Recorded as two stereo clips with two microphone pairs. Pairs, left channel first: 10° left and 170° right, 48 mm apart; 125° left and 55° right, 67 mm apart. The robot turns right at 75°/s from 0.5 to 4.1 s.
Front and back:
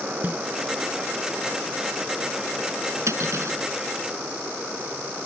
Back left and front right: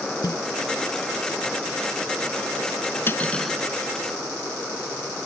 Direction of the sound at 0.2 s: 140° left.